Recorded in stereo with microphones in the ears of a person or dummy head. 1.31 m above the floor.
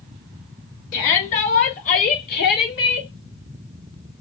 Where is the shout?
35° left (ahead or behind), 2.5 m; by 3.1 s 70° left (ahead or behind), 1.9 m.